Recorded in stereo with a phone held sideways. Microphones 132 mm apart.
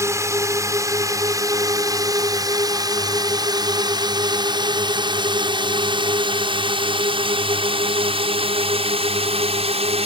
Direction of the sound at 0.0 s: 20° right (ahead or behind).